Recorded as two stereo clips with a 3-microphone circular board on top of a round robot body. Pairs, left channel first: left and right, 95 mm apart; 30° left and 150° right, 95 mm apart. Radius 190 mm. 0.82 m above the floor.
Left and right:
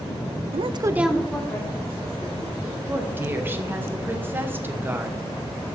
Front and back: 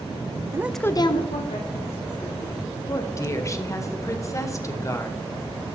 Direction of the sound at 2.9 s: 25° right.